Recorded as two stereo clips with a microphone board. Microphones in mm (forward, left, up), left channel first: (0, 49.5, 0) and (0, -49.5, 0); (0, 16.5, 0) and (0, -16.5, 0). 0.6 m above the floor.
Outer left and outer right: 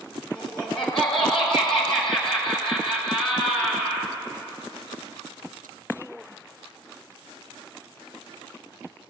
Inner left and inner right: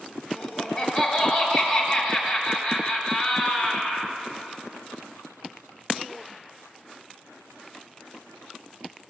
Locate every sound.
0.3 s laughter: centre (ahead or behind), 2.5 m